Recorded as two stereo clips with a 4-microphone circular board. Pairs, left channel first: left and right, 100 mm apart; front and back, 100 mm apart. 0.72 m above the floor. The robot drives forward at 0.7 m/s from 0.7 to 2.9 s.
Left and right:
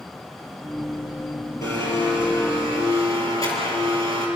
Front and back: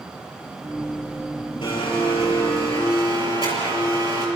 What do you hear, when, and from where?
1.6 s a blender: 30° left, 6 m; by 4.3 s 35° left, 5.5 m